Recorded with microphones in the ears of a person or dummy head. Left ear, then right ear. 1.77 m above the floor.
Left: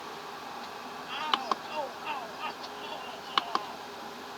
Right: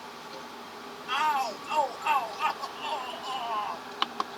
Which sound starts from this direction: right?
A shout, at 1.1 s.